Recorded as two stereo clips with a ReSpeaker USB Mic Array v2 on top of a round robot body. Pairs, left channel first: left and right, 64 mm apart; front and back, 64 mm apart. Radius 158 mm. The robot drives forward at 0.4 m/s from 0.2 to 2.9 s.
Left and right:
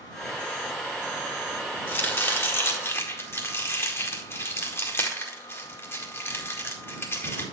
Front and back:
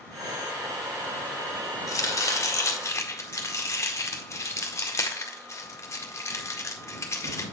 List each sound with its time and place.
1.9 s chopping: 35° left, 2 m; by 7.5 s 40° left, 1.9 m